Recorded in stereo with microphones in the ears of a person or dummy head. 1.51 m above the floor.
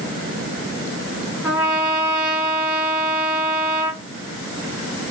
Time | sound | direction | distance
1.4 | a trumpet | centre (ahead or behind) | 2.5 m